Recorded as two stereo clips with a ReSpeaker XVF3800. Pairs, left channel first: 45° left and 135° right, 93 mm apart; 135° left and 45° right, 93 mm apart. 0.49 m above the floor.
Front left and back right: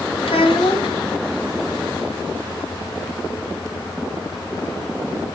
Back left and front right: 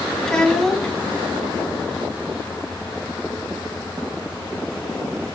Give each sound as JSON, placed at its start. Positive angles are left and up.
{"t": 0.2, "sound": "a child speaking", "azimuth_deg": 50, "distance_m": 1.9}